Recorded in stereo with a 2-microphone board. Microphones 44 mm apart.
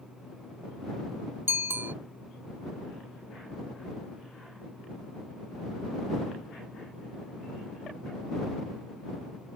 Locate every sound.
1.5 s a bicycle bell: 70° right (ahead or behind)